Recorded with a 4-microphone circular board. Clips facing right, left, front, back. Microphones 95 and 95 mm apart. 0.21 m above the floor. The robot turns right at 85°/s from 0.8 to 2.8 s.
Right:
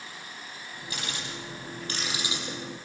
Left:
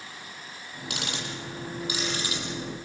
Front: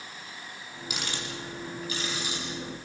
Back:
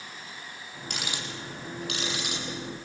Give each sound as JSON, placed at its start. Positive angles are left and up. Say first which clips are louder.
{"t": 0.9, "sound": "ticking", "louder": "left 3 dB, even", "azimuth_deg": 85, "distance_m": 5.5}